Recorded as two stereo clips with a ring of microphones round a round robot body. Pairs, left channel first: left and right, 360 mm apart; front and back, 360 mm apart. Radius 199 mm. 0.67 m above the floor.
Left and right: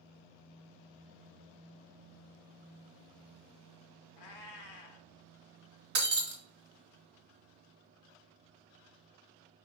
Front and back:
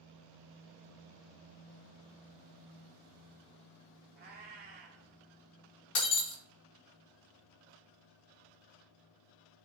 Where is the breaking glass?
45° right, 1.6 m.